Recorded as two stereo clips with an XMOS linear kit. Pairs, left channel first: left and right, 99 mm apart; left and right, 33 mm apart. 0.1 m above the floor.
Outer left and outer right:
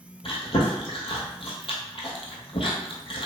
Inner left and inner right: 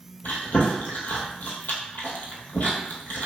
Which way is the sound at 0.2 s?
60° left (ahead or behind).